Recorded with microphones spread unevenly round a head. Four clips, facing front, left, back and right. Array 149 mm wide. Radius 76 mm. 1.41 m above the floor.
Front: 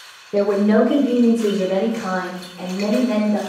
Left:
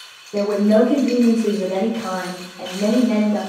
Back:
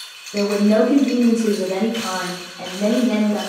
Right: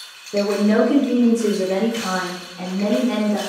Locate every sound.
0.3 s a woman speaking: 30° right, 0.7 m; by 3.4 s 65° right, 2.5 m